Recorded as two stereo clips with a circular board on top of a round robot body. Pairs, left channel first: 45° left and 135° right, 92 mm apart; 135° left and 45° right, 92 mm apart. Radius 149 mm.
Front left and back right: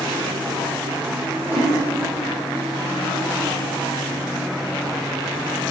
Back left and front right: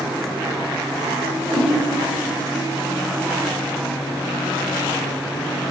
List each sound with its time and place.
1.4 s a whoosh: 60° right, 3.5 m